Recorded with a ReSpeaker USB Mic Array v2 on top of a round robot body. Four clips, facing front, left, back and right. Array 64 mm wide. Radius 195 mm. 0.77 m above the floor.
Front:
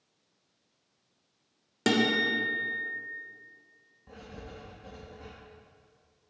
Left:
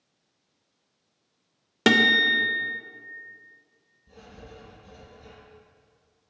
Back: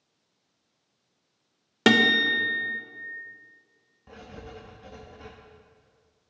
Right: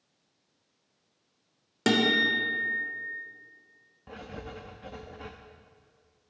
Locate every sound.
1.9 s a guitar: 145° left, 1.1 m
4.1 s writing: 105° right, 0.8 m